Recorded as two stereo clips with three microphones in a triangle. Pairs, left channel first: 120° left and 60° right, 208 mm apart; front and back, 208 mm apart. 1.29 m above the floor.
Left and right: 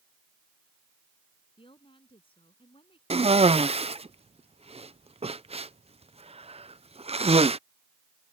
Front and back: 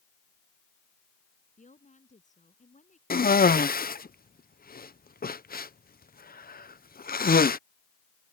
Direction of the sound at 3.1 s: 10° right.